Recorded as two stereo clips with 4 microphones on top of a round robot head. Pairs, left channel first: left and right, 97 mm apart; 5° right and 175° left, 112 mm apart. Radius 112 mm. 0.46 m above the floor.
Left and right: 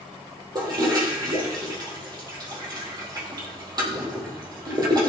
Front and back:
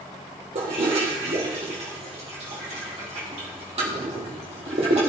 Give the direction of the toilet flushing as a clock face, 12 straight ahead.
5 o'clock.